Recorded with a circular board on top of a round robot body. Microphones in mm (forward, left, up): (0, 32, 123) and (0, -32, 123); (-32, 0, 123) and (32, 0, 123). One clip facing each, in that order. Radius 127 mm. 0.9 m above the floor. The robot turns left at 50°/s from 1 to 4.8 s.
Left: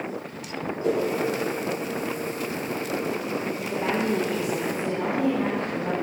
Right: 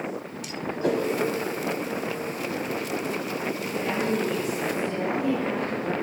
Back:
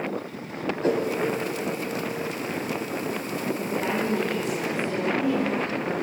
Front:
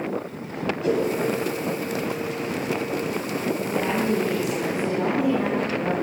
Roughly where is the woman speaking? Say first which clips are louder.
Left 2 dB, front 2 dB; behind left.